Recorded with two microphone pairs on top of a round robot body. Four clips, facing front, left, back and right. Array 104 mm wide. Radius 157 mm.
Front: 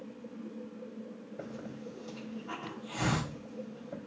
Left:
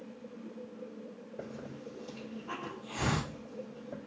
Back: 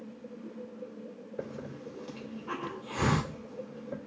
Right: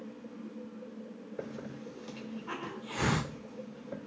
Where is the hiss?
135° right, 3 m.